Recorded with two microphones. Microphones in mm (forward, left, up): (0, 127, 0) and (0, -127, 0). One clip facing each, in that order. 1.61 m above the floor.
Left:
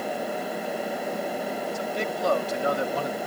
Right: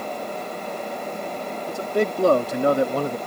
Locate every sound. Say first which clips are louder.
1.7 s a man speaking: right 6 dB; 60° right (ahead or behind); by 3.2 s 55° right (ahead or behind)